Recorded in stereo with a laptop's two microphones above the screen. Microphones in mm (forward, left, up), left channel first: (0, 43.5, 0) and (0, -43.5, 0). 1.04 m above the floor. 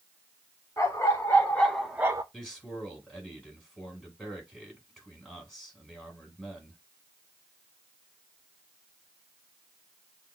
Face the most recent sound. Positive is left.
turn(degrees=5)  # may be behind; listen again after turning